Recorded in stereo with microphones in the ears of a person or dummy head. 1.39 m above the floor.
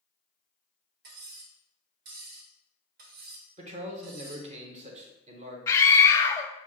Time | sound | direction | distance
1.0 | cutlery clinking | 65° right (ahead or behind) | 1.6 m
3.6 | a man speaking | 45° right (ahead or behind) | 1.0 m
5.7 | a scream | 15° left (ahead or behind) | 0.5 m